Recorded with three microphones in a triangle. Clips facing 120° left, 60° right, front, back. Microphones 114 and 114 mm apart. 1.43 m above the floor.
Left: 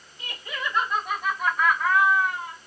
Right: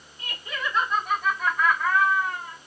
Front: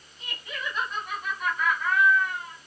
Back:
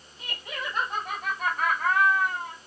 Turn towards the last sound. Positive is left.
turn(degrees=-160)